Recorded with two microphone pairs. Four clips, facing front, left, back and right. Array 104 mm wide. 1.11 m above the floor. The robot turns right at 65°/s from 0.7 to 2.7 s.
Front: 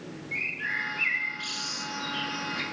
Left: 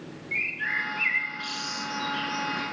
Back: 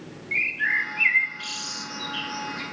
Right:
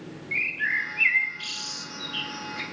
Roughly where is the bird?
Behind.